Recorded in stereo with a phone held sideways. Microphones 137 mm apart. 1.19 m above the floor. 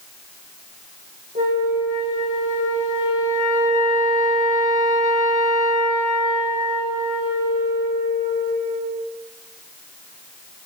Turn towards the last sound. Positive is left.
turn(degrees=-85)